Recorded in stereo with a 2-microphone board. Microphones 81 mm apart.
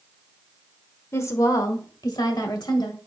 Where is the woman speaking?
35° left (ahead or behind), 1.1 m; by 3.0 s 65° left (ahead or behind), 2.0 m.